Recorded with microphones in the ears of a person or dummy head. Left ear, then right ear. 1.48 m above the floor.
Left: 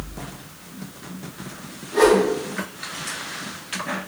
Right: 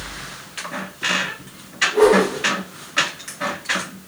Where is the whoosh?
80° left, 2.5 m.